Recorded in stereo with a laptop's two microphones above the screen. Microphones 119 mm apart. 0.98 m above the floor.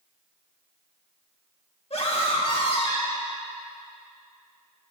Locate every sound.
1.9 s a scream: 50° left (ahead or behind), 1.8 m; by 3.3 s 40° left (ahead or behind), 2.5 m